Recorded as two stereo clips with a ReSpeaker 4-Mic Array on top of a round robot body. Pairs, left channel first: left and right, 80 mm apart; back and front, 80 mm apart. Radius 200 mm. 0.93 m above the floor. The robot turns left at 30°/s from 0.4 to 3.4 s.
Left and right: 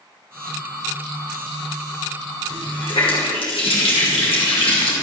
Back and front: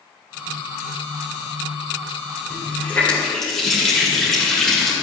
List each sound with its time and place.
2.5 s a running tap: 120° left, 2.5 m; by 4.9 s 95° left, 2.5 m